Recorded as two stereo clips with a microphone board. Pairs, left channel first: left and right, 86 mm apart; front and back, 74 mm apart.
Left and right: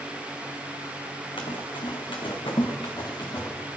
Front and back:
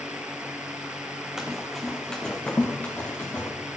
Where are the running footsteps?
95° left, 2 m; by 3.5 s 55° left, 3 m.